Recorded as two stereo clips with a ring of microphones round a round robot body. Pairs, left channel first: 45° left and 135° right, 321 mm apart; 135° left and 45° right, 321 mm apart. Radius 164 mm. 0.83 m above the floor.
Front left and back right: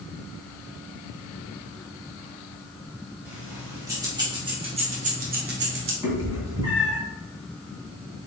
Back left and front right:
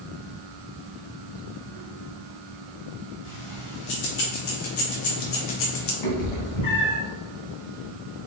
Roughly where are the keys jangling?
Behind left.